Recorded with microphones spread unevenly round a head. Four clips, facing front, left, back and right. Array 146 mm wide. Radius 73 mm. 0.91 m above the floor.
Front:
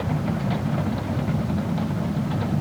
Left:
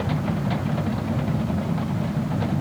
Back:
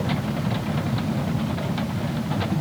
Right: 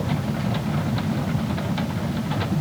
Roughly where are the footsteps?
I don't hear footsteps.